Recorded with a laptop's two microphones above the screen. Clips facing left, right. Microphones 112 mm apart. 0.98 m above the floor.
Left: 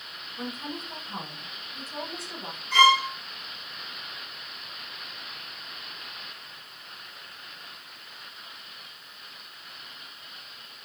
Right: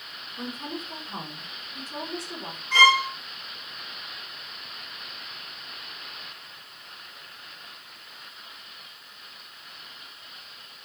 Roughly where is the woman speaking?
Right.